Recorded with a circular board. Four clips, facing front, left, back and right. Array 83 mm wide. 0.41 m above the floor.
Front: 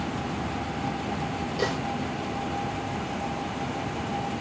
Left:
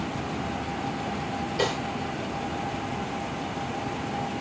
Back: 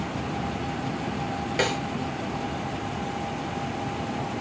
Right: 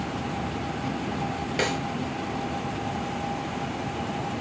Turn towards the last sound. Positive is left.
turn(degrees=-140)